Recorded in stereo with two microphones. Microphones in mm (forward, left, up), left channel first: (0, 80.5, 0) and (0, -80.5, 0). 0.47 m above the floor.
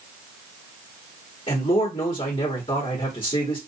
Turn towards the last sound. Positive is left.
turn(degrees=35)  # may be behind; listen again after turning